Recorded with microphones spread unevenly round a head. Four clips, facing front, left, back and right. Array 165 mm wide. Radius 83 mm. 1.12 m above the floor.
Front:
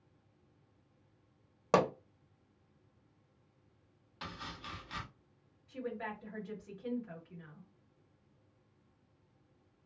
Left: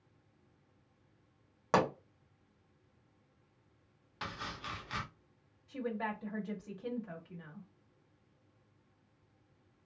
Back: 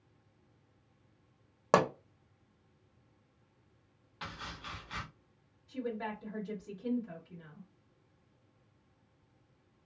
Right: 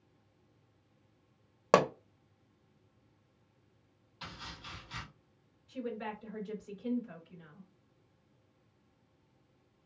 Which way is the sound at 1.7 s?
110° right.